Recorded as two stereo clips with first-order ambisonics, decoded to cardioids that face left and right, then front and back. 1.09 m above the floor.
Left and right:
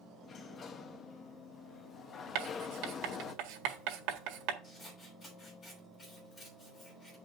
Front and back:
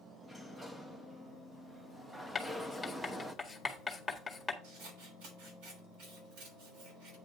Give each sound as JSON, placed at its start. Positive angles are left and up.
{"t": 0.2, "sound": "a sliding door", "azimuth_deg": 105, "distance_m": 0.7}
{"t": 2.4, "sound": "writing", "azimuth_deg": -85, "distance_m": 1.8}
{"t": 4.6, "sound": "scissors", "azimuth_deg": 160, "distance_m": 6.0}